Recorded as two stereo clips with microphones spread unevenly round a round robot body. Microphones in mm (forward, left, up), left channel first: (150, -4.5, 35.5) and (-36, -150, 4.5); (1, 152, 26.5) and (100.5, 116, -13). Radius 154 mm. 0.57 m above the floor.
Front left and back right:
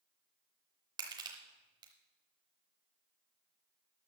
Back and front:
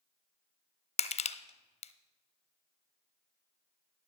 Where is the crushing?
140° left, 0.6 m.